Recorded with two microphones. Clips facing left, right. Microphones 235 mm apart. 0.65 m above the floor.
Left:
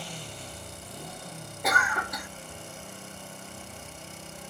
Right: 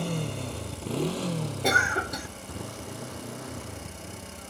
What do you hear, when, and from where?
0.0 s a motorcycle: 60° right (ahead or behind); by 4.5 s 70° right (ahead or behind)
1.6 s a cough: 30° right (ahead or behind)